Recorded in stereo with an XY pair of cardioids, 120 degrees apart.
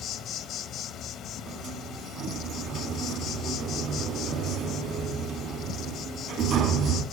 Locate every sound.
0.0 s an insect: 60° left, 1.8 m
1.5 s a sliding door: 60° right, 3 m